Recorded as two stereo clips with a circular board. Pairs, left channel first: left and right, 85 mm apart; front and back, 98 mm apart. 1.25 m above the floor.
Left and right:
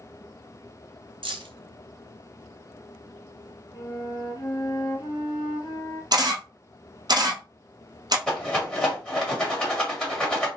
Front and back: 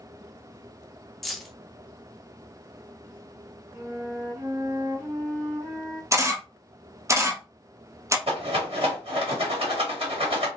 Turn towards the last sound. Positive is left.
turn(degrees=170)